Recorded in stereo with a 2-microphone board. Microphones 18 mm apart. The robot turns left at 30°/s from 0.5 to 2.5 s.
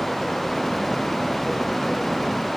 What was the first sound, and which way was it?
Only background noise.